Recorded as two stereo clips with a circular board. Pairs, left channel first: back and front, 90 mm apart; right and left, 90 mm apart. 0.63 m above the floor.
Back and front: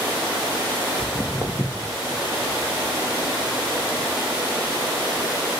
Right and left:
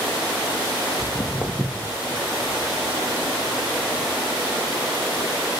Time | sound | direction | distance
1.0 | footsteps | 120° right | 0.8 m